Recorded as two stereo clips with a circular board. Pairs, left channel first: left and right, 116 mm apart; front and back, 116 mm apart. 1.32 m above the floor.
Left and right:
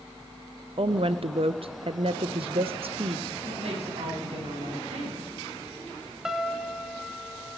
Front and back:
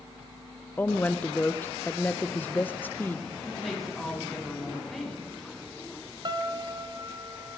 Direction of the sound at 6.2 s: 175° right.